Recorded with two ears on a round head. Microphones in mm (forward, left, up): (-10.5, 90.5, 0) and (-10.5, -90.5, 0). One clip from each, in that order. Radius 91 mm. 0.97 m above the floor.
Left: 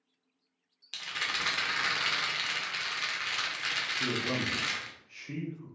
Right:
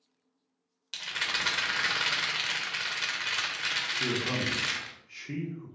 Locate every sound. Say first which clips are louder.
0.9 s a rattle: right 2 dB; centre (ahead or behind), 0.5 m
3.9 s a man speaking: right 1 dB; 5° right (ahead or behind), 0.6 m